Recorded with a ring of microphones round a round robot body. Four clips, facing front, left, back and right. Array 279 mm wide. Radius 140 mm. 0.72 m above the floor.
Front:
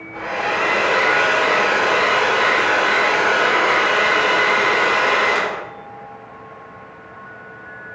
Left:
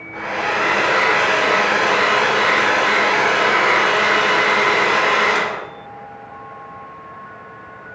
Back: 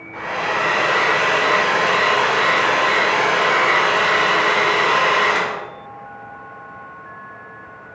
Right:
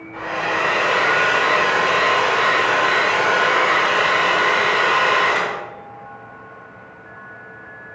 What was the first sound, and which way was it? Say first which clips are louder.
A hair dryer: left 1 dB, even; 85° left.